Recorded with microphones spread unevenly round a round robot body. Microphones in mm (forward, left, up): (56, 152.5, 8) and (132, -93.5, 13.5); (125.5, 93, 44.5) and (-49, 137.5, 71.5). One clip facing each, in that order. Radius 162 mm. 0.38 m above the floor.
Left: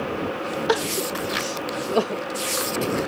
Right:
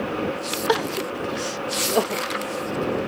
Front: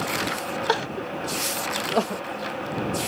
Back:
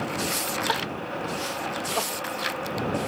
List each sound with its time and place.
0.7 s crying: 25° left